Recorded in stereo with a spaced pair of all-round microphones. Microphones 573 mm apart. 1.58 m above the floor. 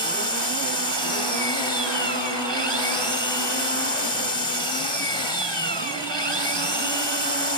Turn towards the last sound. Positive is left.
turn(degrees=-50)  # may be behind; listen again after turning